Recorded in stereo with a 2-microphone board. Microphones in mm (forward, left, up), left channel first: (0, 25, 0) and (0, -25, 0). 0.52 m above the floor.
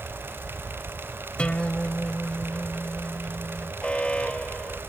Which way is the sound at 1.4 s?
20° left (ahead or behind).